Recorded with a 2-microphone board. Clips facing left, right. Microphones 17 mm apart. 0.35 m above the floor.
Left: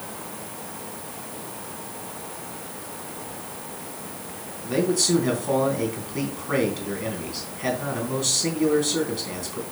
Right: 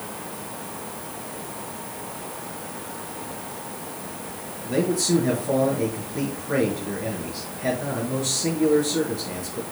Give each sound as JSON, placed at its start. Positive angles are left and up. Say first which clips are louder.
{"t": 4.6, "sound": "a man speaking", "louder": "left 1 dB", "side_deg": 45, "distance_m": 3.5}